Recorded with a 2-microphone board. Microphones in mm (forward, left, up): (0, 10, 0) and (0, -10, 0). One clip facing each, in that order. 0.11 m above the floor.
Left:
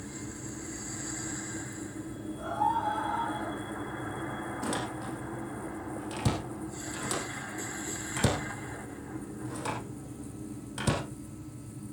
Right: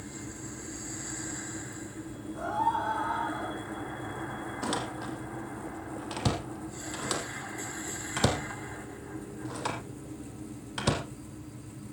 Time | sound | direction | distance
2.4 | a scream | 50° right (ahead or behind) | 4.5 m
4.6 | a door slam | 30° right (ahead or behind) | 3.5 m